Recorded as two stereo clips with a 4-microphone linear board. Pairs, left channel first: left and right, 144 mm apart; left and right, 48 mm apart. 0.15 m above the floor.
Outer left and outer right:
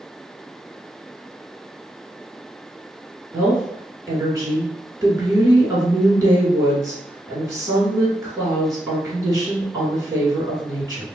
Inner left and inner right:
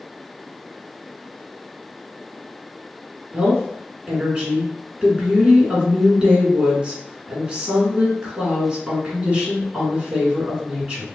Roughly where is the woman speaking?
Right.